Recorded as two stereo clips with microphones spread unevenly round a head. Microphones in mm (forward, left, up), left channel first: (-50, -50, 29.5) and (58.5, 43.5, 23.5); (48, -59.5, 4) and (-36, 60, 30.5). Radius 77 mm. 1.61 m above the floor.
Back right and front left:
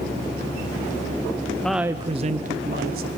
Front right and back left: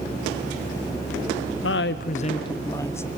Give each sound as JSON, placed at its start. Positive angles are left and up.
{"t": 1.6, "sound": "a woman speaking", "azimuth_deg": -55, "distance_m": 0.7}